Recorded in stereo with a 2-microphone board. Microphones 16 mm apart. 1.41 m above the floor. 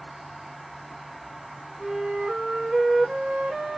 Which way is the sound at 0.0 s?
10° right (ahead or behind).